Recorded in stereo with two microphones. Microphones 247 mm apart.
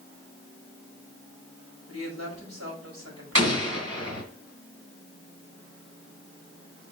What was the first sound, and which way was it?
A woman speaking, 75° right (ahead or behind).